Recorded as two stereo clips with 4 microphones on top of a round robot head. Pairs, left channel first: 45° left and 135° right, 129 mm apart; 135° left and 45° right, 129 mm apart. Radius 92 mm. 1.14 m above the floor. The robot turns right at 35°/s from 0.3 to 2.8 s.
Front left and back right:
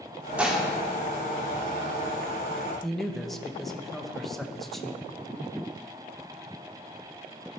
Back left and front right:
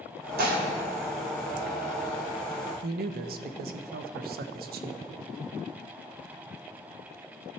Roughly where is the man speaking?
Ahead right.